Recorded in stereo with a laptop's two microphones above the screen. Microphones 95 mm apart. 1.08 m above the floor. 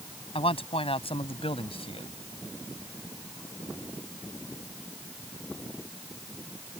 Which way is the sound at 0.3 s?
80° left.